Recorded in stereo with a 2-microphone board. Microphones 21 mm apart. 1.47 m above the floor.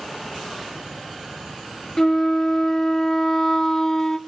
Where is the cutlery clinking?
I don't hear cutlery clinking.